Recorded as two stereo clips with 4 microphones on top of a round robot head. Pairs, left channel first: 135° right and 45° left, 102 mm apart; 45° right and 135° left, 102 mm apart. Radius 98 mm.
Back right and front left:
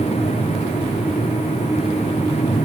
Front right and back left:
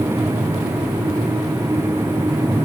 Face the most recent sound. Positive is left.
No sound to turn to.